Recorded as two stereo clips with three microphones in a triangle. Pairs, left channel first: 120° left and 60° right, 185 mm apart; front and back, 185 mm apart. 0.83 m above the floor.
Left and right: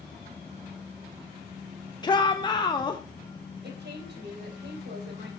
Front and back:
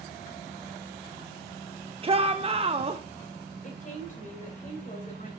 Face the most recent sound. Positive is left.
turn(degrees=-45)